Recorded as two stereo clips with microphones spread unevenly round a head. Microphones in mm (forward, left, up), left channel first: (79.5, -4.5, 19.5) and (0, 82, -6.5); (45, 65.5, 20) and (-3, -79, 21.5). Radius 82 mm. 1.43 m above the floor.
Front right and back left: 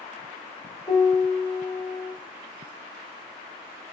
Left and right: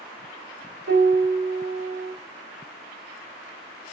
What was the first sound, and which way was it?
A piano, 115° right.